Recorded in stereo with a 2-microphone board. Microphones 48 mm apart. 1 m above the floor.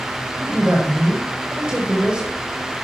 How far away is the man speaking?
About 4.5 m.